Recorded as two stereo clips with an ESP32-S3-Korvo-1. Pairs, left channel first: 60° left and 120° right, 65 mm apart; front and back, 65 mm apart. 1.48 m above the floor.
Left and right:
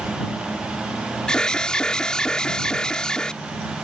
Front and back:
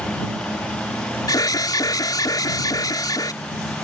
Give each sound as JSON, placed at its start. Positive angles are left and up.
{"t": 1.3, "sound": "an alarm", "azimuth_deg": -20}